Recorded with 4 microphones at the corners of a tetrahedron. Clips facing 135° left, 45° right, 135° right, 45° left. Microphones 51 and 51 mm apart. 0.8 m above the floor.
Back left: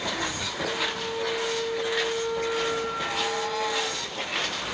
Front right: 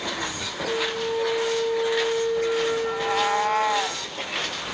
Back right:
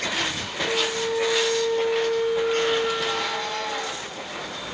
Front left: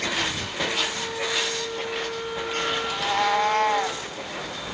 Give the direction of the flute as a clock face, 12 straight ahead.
4 o'clock.